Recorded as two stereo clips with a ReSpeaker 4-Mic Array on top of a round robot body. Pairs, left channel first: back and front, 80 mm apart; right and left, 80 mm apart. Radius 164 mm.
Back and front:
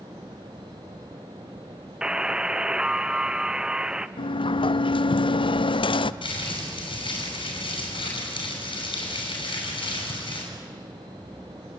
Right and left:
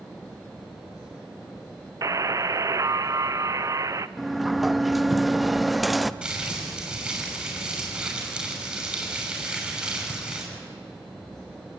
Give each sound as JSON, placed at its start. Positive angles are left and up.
{"t": 2.0, "sound": "a buzzer", "azimuth_deg": 75, "distance_m": 0.9}
{"t": 4.2, "sound": "a sliding door", "azimuth_deg": 180, "distance_m": 0.6}
{"t": 6.2, "sound": "crumpling", "azimuth_deg": 170, "distance_m": 6.0}